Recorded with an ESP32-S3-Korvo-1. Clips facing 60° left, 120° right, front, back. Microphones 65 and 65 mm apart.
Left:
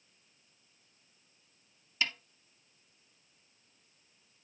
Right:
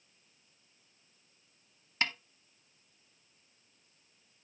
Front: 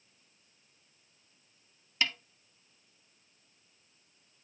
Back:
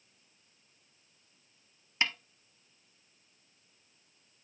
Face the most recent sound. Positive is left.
turn(degrees=-130)